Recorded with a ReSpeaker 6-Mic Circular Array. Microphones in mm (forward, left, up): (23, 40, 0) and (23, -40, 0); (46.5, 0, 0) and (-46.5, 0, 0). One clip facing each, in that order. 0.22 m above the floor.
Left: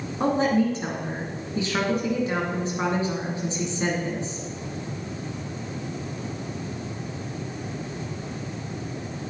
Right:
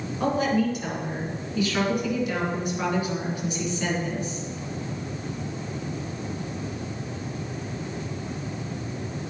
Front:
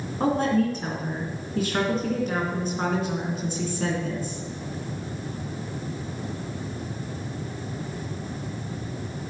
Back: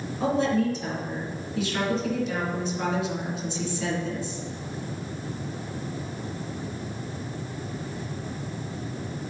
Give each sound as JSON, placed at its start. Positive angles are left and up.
{"t": 0.2, "sound": "a woman speaking", "azimuth_deg": 35, "distance_m": 3.0}